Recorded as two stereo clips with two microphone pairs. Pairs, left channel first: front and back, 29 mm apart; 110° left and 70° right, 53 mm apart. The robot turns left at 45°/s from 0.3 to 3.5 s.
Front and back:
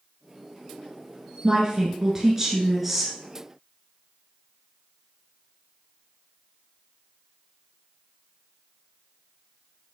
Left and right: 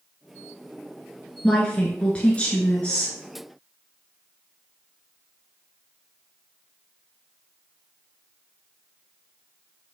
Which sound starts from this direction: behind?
A woman speaking, at 1.4 s.